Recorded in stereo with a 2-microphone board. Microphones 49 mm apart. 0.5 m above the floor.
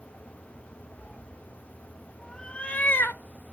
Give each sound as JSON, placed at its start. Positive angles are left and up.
{"t": 1.0, "sound": "a cat meowing", "side_deg": -25, "distance_m": 1.3}